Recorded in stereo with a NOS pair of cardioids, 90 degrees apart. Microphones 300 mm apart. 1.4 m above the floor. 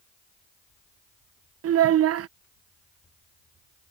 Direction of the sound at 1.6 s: 55° right.